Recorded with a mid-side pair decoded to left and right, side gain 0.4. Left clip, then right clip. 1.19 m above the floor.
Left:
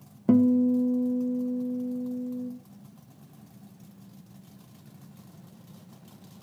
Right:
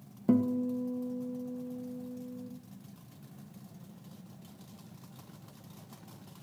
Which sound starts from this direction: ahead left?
A guitar, at 0.3 s.